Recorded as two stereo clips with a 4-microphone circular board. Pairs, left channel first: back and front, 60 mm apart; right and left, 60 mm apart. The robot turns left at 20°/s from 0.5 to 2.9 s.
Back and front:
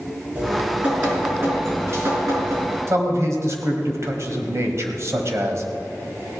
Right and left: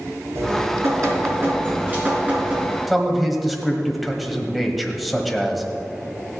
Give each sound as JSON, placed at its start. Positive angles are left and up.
{"t": 0.3, "sound": "dripping", "azimuth_deg": 60, "distance_m": 4.5}
{"t": 2.9, "sound": "a man speaking", "azimuth_deg": 0, "distance_m": 1.6}